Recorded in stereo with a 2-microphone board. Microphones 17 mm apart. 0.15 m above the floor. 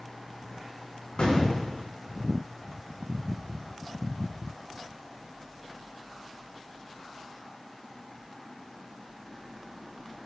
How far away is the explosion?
About 9.5 m.